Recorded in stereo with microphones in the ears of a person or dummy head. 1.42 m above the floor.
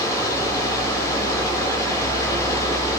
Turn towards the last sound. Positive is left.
turn(degrees=20)  # may be behind; listen again after turning